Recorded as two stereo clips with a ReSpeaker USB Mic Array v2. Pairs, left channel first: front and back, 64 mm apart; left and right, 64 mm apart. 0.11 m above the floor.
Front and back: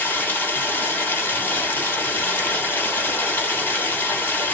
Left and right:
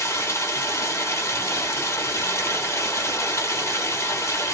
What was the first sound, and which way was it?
Running water, 55° left.